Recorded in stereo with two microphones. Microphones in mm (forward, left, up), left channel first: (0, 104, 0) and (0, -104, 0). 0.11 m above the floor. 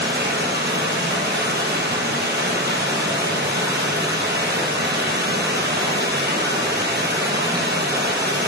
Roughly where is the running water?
Right.